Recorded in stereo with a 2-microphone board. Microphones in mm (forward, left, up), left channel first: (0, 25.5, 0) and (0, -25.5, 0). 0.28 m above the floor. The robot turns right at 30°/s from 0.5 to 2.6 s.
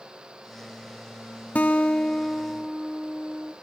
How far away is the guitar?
About 0.8 m.